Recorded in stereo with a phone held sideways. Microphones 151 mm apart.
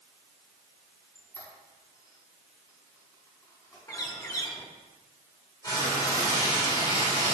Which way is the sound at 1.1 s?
20° left (ahead or behind).